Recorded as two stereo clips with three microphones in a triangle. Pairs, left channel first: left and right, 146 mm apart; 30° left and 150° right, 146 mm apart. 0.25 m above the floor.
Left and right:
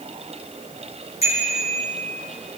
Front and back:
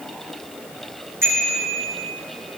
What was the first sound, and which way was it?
A bicycle bell, 135° left.